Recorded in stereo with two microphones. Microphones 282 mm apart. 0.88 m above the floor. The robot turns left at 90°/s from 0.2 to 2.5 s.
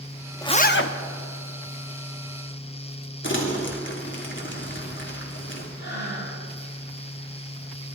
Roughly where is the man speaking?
No man speaking in this recording.